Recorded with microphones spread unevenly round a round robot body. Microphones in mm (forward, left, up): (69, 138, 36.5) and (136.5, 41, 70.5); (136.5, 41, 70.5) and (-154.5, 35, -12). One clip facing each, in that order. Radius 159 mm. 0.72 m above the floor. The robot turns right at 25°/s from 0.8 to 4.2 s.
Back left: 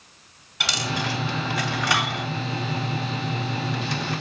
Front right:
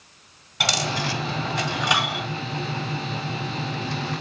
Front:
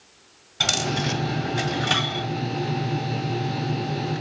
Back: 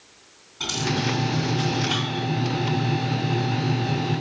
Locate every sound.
0.6 s a dropped coin: 15° right, 2 m; by 2.3 s 20° left, 2 m